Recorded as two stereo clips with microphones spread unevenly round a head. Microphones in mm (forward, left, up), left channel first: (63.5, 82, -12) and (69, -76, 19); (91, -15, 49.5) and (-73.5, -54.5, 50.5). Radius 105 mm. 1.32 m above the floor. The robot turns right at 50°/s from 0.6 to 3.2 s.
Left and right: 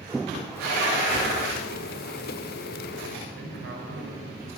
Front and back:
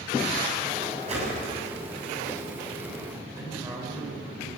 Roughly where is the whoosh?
Behind left.